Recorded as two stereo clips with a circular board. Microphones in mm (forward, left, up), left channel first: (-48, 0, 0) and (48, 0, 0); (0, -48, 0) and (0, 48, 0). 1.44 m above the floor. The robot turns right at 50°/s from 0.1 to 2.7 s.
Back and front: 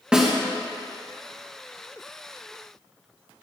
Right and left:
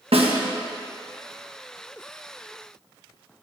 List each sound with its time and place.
0.1 s a snare drum: 80° left, 1.2 m; by 0.3 s 90° left, 1.2 m